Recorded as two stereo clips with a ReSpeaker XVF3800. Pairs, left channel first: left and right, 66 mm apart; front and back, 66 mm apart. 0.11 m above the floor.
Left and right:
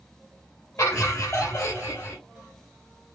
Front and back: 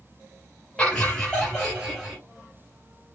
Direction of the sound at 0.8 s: 70° left.